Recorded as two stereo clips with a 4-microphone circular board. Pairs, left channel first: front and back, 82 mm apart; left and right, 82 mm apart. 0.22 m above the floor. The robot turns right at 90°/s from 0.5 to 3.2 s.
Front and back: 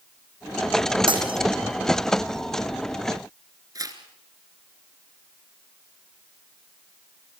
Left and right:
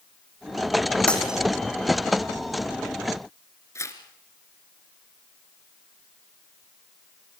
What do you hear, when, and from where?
1.1 s breaking glass: 165° left, 3.5 m; by 1.4 s 165° right, 3.5 m
3.8 s tearing paper: 140° left, 2.5 m